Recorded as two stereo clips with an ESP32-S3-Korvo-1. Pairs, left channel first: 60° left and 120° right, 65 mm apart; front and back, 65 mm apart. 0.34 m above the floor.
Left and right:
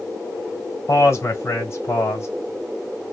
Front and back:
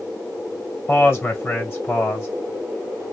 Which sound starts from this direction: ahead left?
A man speaking, at 0.9 s.